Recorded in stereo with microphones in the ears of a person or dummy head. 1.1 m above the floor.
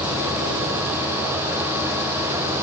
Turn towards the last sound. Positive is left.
No sound to turn to.